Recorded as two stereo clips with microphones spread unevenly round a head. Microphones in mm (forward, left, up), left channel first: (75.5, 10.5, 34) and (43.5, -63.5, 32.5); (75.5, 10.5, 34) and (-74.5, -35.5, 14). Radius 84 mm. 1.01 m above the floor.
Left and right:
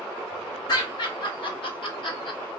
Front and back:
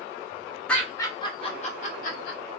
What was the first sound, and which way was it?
Laughter, 105° left.